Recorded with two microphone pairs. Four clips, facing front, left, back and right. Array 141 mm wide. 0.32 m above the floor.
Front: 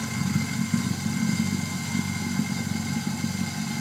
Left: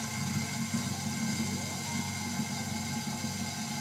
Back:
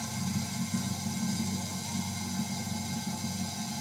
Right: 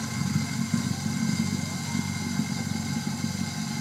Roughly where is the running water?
Ahead.